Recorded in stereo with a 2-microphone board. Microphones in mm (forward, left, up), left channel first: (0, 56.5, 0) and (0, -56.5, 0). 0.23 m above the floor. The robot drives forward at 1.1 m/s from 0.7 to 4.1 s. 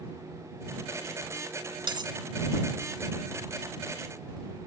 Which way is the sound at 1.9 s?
45° right (ahead or behind).